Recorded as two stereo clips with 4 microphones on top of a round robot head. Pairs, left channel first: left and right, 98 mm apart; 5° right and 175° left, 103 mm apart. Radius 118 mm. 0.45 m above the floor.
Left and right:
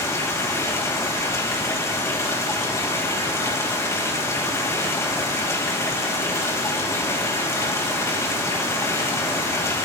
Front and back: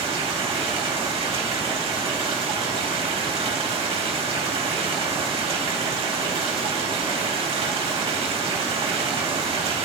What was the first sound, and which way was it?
Running water, 150° left.